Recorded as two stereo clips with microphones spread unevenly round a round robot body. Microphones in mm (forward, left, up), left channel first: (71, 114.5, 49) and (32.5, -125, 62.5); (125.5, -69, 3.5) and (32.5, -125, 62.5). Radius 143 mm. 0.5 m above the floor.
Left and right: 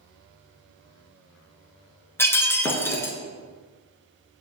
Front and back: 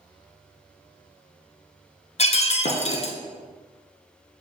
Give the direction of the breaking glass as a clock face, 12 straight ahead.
12 o'clock.